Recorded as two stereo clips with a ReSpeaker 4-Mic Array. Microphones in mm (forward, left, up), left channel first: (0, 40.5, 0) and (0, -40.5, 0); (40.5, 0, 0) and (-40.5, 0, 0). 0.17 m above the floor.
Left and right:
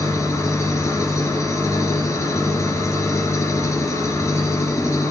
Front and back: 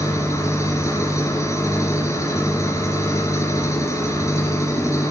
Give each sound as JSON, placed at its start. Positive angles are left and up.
{"t": 0.0, "sound": "an engine running", "azimuth_deg": 45, "distance_m": 2.5}